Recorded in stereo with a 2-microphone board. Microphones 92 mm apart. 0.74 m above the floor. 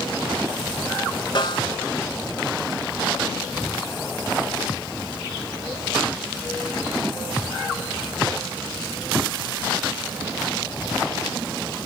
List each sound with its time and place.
1.4 s a snare drum: 50° left (ahead or behind), 1.9 m